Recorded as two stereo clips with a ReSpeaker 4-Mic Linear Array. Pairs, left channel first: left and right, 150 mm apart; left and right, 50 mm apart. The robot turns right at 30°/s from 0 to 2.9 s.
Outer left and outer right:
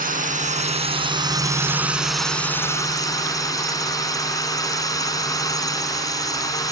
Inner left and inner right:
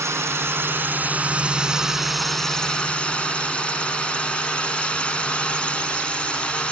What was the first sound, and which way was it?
A drone, 65° right.